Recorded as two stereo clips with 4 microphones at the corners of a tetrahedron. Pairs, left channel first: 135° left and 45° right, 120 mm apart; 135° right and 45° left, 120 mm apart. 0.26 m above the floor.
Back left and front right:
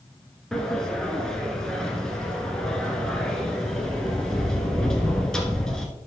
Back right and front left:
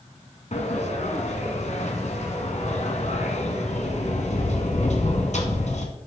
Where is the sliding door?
140° right, 1.4 m.